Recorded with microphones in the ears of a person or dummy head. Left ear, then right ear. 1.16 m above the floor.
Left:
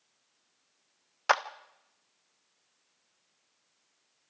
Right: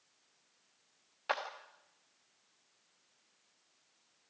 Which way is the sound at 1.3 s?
45° left (ahead or behind).